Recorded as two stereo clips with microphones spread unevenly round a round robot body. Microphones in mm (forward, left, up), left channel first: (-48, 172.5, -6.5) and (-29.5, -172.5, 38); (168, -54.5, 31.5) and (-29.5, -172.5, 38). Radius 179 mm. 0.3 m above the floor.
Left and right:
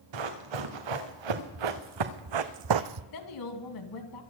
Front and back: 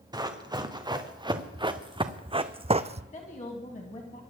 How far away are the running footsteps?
About 2.5 m.